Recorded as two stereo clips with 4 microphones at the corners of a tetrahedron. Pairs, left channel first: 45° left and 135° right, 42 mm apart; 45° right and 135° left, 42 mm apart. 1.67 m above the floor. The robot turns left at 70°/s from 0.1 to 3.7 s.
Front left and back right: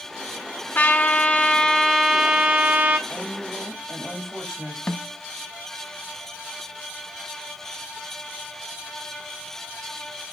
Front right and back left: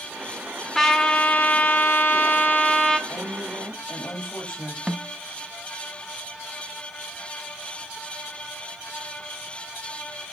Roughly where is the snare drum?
Left.